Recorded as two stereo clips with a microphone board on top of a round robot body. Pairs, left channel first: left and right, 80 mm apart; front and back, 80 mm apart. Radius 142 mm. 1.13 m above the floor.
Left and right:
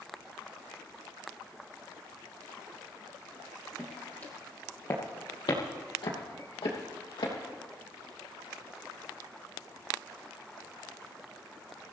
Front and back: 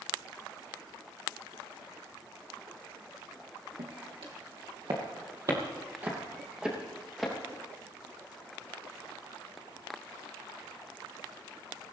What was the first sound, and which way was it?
Footsteps, 170° left.